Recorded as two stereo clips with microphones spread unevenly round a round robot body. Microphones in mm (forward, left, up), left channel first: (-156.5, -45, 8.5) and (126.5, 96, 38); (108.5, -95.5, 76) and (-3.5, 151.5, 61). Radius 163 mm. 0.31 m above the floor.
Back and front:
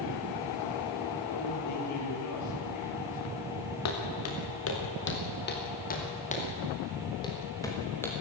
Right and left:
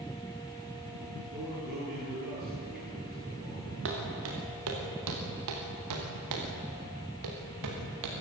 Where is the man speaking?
175° left, 9 m.